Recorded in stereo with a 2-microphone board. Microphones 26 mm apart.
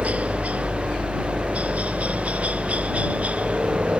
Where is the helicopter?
60° right (ahead or behind); by 4.0 s 55° right (ahead or behind).